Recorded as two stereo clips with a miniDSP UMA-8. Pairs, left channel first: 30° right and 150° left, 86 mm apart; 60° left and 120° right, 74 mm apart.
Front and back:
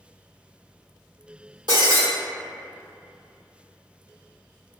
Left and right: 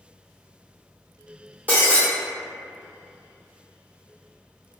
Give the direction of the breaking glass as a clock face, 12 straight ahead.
6 o'clock.